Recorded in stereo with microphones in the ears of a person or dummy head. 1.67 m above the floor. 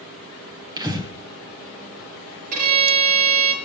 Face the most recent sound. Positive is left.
turn(degrees=-45)  # may be behind; listen again after turning